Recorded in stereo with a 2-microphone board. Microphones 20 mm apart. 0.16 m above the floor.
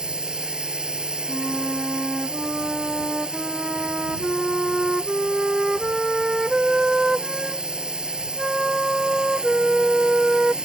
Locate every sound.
0.0 s a drone: 60° right (ahead or behind)
1.3 s a flute: 30° right (ahead or behind)